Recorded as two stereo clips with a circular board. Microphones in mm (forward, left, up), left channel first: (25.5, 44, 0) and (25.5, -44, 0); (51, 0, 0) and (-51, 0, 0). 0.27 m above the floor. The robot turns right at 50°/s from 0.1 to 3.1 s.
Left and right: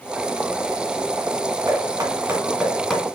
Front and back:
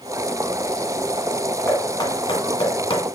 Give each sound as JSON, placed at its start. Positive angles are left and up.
{"t": 1.7, "sound": "knocking", "azimuth_deg": -55, "distance_m": 2.0}